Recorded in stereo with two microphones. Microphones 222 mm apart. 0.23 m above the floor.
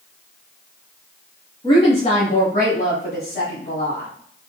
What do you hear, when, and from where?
1.6 s a woman speaking: 20° left (ahead or behind), 1.3 m; by 4.1 s 55° left (ahead or behind), 2 m